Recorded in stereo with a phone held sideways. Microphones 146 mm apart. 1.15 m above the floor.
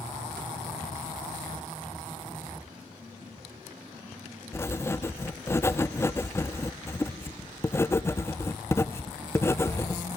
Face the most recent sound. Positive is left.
turn(degrees=15)  # may be behind; listen again after turning